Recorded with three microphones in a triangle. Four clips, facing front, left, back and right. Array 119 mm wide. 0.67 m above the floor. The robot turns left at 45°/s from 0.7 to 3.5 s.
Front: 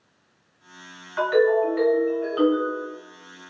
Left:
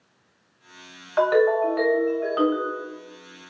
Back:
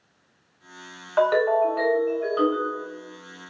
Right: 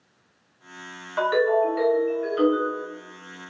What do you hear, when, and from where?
1.2 s a ringtone: 160° left, 1.7 m; by 2.8 s 85° left, 1.7 m